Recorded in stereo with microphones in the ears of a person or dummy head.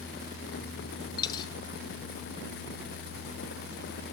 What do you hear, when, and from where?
1.2 s a dropped coin: 20° left (ahead or behind), 1.1 m